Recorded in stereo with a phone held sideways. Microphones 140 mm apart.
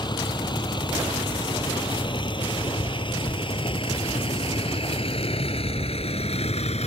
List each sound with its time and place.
0.0 s a vehicle: 35° left (ahead or behind); by 6.9 s 55° left (ahead or behind)